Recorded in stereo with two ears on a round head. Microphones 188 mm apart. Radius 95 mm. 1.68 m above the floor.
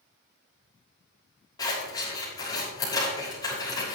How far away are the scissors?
About 6.5 m.